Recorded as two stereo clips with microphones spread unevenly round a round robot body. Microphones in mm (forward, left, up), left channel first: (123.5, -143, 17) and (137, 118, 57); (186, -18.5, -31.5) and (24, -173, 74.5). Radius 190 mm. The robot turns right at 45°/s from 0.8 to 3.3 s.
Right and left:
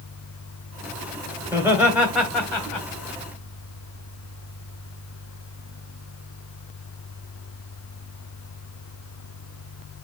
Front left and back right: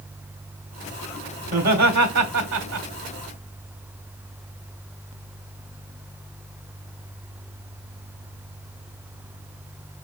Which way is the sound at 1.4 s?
170° left.